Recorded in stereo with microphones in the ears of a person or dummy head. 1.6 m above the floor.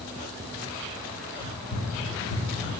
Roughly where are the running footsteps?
Left.